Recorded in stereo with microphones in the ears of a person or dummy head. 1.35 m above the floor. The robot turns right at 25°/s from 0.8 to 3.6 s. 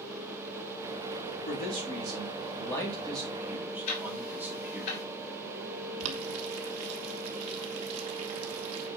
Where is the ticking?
65° left (ahead or behind), 3 m.